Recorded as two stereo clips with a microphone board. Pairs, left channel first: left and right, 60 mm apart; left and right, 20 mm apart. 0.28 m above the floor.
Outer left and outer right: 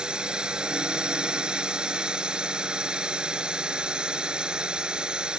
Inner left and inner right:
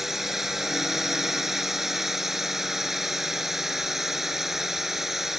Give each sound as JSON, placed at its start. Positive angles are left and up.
{"t": 0.0, "sound": "a drone", "side_deg": -15}